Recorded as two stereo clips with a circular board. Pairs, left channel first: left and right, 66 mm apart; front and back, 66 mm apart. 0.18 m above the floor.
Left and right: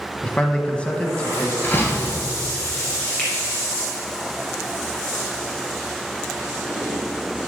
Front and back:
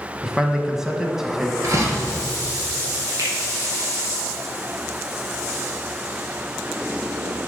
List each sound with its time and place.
0.2 s a man speaking: 115° left, 1.0 m
1.6 s a door slam: 145° left, 2 m
3.2 s a finger snap: 160° left, 3 m